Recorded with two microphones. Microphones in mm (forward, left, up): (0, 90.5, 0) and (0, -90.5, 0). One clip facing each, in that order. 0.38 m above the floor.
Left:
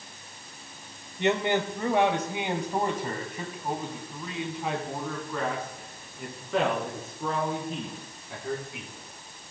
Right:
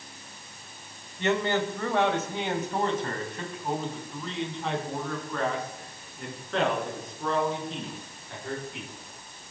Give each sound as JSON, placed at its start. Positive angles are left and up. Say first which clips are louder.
{"t": 1.2, "sound": "a man speaking", "louder": "left 1 dB", "side_deg": 20, "distance_m": 1.4}